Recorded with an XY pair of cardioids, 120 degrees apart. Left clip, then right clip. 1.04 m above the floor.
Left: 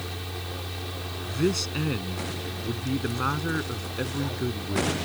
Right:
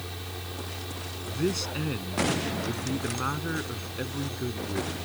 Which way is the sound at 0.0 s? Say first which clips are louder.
Left 3 dB; 20° left.